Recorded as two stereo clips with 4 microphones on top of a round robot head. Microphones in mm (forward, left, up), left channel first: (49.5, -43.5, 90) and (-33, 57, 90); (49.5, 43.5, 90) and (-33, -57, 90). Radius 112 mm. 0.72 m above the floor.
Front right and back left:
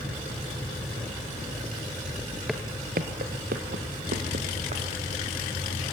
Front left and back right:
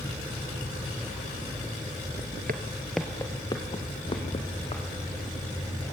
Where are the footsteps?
140° right, 0.8 m; by 4.8 s 105° left, 3.5 m.